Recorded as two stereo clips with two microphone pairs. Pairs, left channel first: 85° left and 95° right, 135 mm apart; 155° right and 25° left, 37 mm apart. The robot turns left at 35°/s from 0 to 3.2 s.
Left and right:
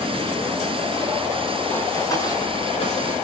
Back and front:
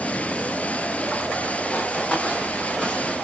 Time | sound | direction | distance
1.7 | running footsteps | 160° left | 4 m